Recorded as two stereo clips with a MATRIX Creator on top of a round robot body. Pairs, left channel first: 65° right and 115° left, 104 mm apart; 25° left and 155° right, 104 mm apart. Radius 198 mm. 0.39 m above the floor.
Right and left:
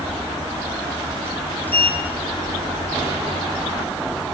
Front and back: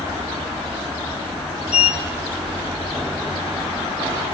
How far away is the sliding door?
About 2.5 m.